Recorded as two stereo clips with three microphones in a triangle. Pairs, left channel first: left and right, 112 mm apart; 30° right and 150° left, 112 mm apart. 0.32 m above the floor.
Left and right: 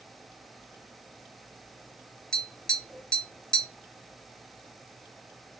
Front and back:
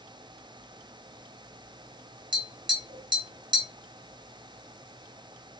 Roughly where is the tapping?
Behind.